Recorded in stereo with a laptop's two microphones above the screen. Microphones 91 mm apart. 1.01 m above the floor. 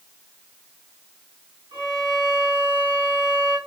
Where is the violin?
65° right (ahead or behind), 1.8 m.